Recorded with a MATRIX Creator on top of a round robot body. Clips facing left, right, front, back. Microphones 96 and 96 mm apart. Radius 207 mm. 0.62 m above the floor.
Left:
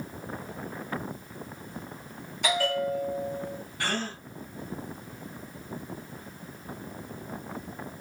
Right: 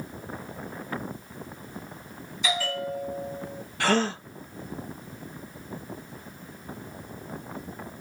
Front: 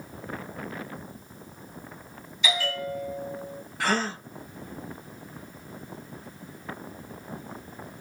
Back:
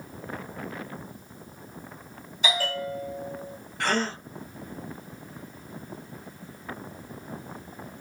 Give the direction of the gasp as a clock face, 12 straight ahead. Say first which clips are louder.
Right 9 dB, even; 3 o'clock.